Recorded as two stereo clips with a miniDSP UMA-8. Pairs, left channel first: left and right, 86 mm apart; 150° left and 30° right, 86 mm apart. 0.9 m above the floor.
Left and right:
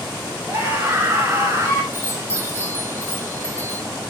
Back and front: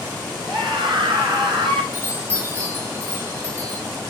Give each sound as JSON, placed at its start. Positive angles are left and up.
{"t": 0.5, "sound": "a scream", "azimuth_deg": -25, "distance_m": 6.5}
{"t": 1.9, "sound": "a chime", "azimuth_deg": 30, "distance_m": 5.0}